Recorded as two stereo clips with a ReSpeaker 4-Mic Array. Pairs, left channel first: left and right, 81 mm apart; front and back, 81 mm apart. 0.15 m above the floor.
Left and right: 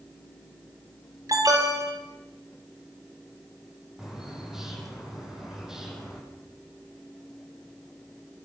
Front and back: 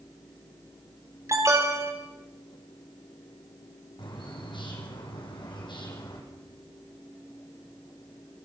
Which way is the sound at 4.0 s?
5° right.